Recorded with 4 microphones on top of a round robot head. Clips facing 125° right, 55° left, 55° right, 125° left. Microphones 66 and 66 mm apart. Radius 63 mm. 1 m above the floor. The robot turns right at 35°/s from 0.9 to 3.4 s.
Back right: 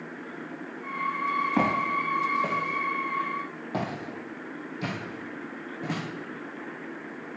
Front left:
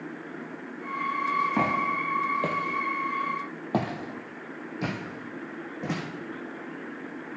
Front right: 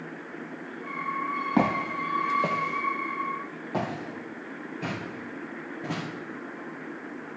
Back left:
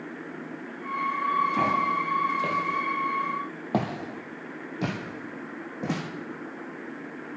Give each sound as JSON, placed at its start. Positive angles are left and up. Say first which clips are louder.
{"t": 1.6, "sound": "footsteps", "louder": "back right 1 dB, back left 1 dB", "azimuth_deg": -40, "distance_m": 1.8}